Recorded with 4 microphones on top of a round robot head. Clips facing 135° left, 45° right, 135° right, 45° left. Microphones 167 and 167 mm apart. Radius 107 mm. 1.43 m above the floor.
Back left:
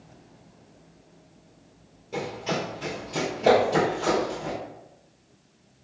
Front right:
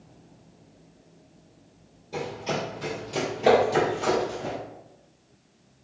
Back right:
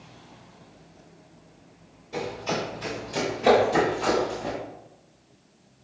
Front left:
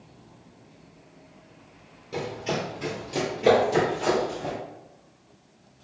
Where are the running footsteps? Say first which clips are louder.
Back left 1 dB, even; 65° left, 2.0 m; by 4.5 s 5° left, 1.6 m.